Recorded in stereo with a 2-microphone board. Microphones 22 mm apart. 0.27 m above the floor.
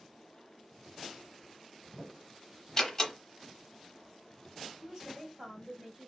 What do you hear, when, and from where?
2.8 s a door slam: 25° left (ahead or behind), 0.8 m
4.8 s a woman speaking: 35° right (ahead or behind), 1.9 m